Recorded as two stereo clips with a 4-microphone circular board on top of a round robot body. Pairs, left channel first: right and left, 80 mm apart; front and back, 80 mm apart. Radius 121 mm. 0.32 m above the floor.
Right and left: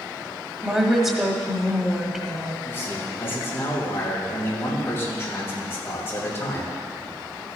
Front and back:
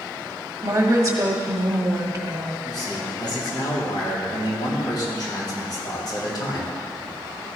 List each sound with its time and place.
0.6 s a woman speaking: 165° left, 1.5 m
2.6 s a man speaking: 30° right, 3.5 m